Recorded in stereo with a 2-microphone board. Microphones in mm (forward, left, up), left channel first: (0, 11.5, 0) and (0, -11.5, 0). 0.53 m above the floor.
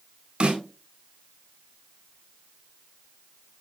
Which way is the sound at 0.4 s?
50° right (ahead or behind).